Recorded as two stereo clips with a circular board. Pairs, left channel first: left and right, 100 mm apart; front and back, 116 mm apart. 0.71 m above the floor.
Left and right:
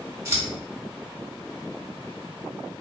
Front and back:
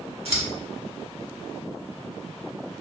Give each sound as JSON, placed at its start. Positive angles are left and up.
{"t": 0.2, "sound": "scissors", "azimuth_deg": -150, "distance_m": 1.0}